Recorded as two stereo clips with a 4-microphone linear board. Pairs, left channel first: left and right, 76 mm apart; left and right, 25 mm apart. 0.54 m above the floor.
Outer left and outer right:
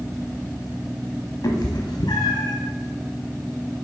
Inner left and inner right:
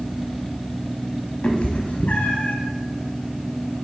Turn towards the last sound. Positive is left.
turn(degrees=80)